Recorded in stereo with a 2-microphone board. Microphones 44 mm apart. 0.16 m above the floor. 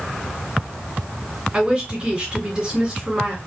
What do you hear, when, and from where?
1.5 s a woman speaking: 15° right (ahead or behind), 1.7 m